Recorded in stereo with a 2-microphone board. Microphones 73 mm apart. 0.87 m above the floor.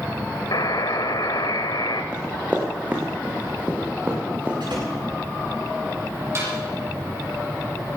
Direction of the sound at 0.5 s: 70° left (ahead or behind).